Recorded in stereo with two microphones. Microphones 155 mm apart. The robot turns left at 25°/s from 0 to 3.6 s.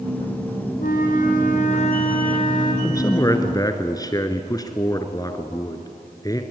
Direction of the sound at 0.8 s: 80° left.